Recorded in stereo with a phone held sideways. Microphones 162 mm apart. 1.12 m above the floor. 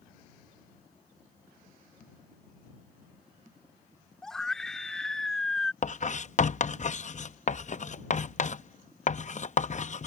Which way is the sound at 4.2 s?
5° left (ahead or behind).